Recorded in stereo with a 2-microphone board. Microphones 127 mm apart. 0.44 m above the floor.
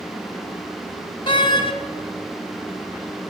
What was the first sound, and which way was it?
A door slam, 40° left (ahead or behind).